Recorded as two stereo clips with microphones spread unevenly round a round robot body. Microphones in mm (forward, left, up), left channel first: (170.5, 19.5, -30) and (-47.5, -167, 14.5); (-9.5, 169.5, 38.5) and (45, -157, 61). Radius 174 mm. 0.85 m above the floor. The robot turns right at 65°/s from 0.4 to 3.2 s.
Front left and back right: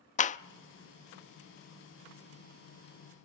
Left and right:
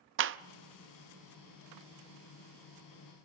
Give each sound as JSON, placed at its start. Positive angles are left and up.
{"t": 0.2, "sound": "a clap", "azimuth_deg": -25, "distance_m": 0.6}